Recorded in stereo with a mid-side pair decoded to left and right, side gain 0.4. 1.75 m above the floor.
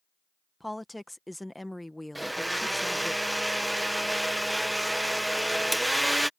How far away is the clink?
No clink in this recording.